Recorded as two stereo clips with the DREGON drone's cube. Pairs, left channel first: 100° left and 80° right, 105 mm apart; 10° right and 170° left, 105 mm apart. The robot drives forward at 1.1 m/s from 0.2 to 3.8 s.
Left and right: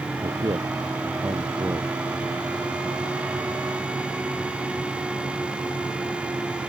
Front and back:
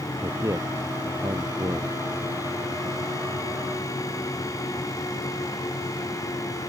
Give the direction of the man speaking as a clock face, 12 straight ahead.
4 o'clock.